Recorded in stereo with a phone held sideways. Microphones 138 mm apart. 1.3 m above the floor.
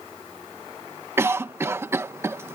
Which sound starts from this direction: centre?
A cough, at 1.2 s.